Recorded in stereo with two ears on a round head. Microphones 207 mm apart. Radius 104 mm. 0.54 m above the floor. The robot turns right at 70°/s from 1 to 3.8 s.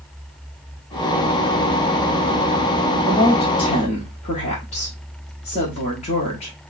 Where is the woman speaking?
Straight ahead, 1.2 m; by 6.5 s 55° left, 1.2 m.